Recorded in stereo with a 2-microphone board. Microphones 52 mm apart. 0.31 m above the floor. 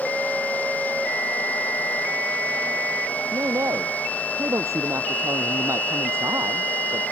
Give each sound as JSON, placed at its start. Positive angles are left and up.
{"t": 3.3, "sound": "a man speaking", "side_deg": -85}